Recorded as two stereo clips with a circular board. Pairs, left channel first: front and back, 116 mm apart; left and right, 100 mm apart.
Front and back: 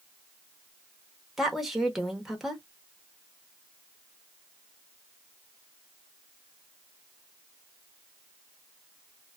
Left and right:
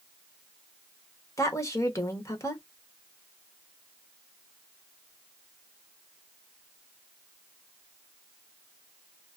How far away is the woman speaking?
About 0.8 m.